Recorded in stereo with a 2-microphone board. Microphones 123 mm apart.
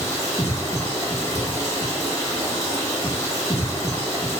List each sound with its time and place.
0.0 s running water: 25° left (ahead or behind), 0.8 m